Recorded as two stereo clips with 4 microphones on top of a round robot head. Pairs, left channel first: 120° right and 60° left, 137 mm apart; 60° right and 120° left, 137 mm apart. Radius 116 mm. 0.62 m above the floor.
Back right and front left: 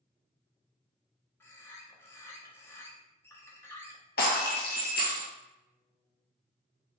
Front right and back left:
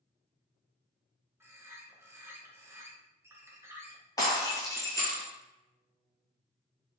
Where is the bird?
Straight behind, 1.0 m.